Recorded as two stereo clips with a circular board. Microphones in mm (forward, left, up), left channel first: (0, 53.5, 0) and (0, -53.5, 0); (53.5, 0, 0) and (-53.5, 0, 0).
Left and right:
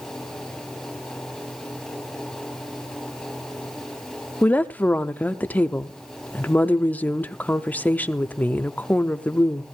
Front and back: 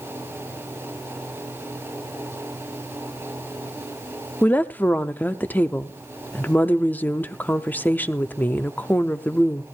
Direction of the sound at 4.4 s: 40° left.